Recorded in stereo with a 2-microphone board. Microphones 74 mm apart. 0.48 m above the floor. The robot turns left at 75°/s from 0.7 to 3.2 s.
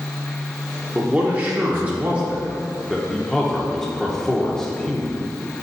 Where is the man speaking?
10° right (ahead or behind), 0.8 m; by 5.2 s 5° left (ahead or behind), 0.8 m.